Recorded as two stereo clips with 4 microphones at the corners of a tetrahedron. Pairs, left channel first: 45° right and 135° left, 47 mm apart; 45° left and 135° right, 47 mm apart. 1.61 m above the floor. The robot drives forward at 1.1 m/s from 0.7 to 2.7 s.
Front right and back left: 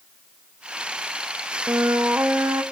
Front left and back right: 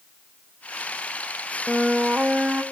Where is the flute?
135° left, 0.6 m; by 2.6 s 165° left, 1.5 m.